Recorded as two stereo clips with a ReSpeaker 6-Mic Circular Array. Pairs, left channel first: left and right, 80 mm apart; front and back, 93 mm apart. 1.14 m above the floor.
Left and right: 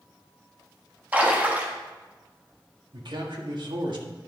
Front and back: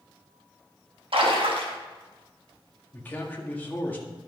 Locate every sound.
1.1 s a splash: 160° right, 1.5 m
2.9 s a man speaking: 70° right, 1.7 m